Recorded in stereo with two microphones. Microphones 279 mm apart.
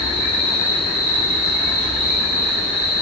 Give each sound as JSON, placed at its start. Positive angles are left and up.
{"t": 0.0, "sound": "an insect", "side_deg": 10, "distance_m": 1.3}